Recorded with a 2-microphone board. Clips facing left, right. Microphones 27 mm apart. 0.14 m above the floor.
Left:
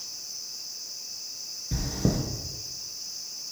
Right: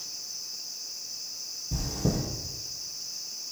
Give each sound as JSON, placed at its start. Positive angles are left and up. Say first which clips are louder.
{"t": 1.7, "sound": "chewing", "louder": "left 2 dB", "side_deg": 50, "distance_m": 1.8}